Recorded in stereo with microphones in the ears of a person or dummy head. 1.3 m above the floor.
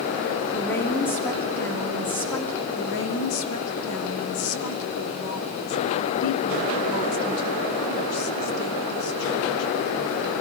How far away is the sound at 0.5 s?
About 3 m.